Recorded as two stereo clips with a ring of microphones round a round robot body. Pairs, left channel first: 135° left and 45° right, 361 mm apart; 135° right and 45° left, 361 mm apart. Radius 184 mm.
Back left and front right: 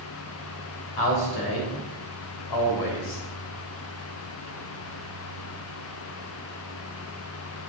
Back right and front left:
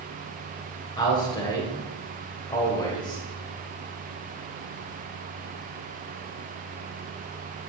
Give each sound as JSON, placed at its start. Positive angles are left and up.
{"t": 1.0, "sound": "a man speaking", "azimuth_deg": 145, "distance_m": 3.5}